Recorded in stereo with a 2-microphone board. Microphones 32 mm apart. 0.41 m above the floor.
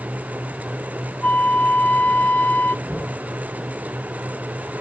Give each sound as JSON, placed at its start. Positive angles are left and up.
{"t": 1.2, "sound": "a flute", "side_deg": 45, "distance_m": 0.6}
{"t": 2.9, "sound": "knocking", "side_deg": -25, "distance_m": 3.5}